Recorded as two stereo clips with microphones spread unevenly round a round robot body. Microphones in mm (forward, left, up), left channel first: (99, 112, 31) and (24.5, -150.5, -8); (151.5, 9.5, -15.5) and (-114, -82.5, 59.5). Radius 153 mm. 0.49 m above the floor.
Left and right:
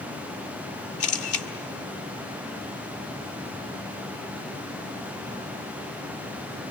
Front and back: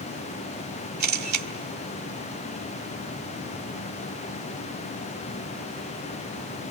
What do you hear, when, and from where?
1.0 s a camera shutter: 140° left, 1.5 m